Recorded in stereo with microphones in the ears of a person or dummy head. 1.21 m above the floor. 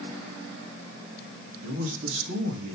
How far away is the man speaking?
About 1.9 m.